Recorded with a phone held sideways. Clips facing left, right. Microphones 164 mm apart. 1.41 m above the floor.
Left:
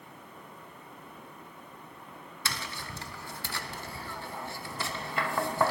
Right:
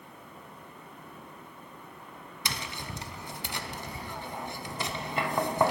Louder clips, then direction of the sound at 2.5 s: Right 1 dB; 20° right (ahead or behind).